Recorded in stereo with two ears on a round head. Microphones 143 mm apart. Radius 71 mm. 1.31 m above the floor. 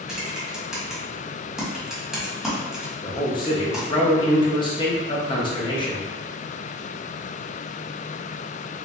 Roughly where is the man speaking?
Left.